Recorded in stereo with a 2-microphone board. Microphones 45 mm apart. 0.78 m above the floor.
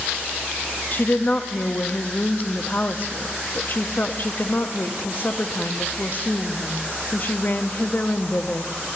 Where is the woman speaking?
45° left (ahead or behind), 0.6 m.